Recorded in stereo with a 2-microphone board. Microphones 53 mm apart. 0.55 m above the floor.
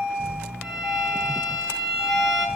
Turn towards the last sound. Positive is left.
turn(degrees=0)  # may be behind; listen again after turning